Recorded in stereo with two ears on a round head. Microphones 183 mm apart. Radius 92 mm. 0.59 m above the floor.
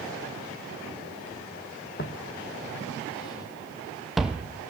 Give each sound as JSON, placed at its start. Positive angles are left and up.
{"t": 2.0, "sound": "footsteps", "side_deg": 45, "distance_m": 1.5}